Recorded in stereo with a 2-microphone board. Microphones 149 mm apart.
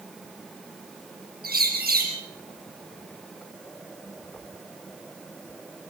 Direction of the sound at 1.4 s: 85° right.